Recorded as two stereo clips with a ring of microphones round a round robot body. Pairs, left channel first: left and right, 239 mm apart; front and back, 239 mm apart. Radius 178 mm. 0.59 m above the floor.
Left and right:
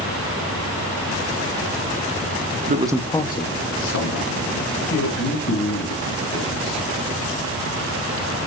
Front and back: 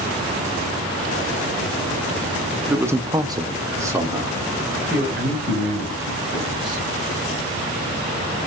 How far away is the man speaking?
About 0.7 m.